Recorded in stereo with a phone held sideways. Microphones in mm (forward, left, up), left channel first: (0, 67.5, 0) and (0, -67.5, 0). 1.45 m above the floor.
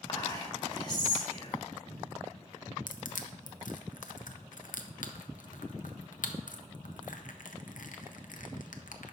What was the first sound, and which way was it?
Whispering, 30° left (ahead or behind).